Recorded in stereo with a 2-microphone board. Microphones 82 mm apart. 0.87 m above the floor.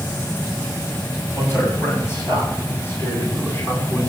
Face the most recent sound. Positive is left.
turn(degrees=25)  # may be behind; listen again after turning